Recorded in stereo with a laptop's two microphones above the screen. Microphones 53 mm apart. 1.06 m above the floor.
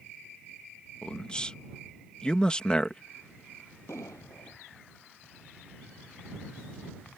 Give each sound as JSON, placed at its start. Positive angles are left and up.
{"t": 1.0, "sound": "a man speaking", "side_deg": 20}
{"t": 3.9, "sound": "an explosion", "side_deg": 85}